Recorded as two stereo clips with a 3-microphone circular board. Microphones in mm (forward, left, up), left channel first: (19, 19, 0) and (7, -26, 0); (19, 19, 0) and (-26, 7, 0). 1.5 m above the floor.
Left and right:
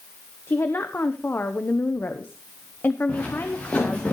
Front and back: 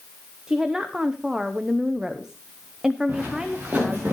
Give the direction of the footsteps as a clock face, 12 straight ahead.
8 o'clock.